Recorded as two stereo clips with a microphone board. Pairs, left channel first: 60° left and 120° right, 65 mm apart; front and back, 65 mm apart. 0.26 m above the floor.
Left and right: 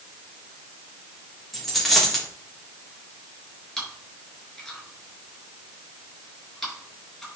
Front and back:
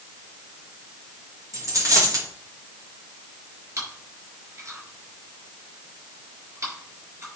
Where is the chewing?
145° left, 5.5 m.